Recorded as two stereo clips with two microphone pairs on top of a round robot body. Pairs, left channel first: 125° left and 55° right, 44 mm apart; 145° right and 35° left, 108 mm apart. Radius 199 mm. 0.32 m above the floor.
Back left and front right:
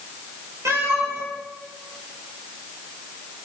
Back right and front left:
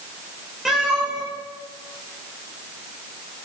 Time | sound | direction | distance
0.7 | a cat meowing | 50° right | 5.5 m